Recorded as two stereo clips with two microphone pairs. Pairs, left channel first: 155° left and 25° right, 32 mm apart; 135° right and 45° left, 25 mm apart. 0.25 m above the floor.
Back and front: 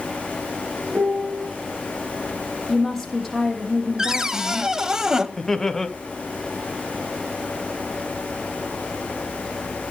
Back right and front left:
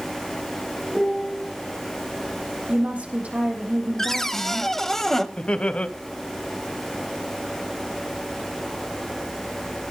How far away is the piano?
About 3 m.